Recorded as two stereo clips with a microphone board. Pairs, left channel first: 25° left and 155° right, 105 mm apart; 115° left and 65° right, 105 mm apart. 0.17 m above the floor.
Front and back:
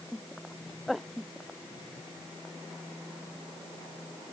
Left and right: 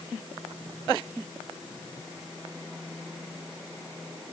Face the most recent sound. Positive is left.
No sound to turn to.